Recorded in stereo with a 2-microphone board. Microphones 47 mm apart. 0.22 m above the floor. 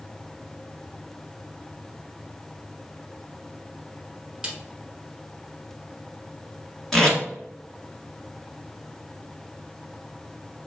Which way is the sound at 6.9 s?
10° left (ahead or behind).